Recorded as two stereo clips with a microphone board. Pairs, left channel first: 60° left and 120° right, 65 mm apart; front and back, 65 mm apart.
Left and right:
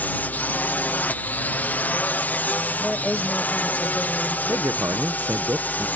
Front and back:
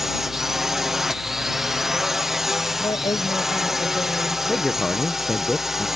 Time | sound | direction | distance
0.0 | a drone | 100° left | ?
2.8 | a woman speaking | 15° right | ?
4.5 | a man speaking | 85° right | ?